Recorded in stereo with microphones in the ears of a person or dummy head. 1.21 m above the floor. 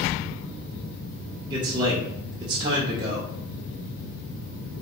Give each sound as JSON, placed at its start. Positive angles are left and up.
{"t": 1.5, "sound": "a man speaking", "side_deg": -25, "distance_m": 0.5}